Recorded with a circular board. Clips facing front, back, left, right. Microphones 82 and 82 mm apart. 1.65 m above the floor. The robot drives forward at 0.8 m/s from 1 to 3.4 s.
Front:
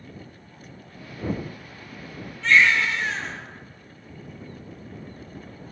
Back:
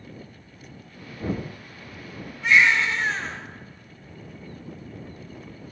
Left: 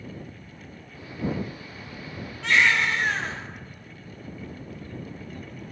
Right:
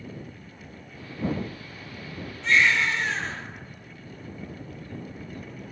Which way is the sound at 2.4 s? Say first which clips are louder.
Even, left 1 dB; 105° left.